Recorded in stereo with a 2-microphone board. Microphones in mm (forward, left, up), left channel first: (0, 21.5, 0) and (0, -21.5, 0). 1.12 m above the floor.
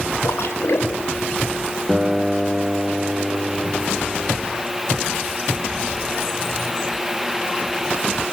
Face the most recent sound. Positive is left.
turn(degrees=5)  # may be behind; listen again after turning